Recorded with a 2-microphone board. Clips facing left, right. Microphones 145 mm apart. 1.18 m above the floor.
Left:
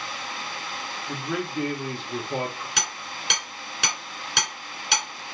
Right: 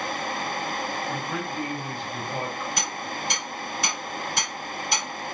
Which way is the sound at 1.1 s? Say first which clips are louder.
Even; 80° left.